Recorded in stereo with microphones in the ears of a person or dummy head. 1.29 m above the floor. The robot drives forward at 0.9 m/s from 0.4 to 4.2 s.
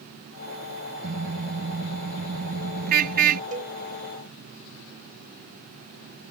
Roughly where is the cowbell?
Right.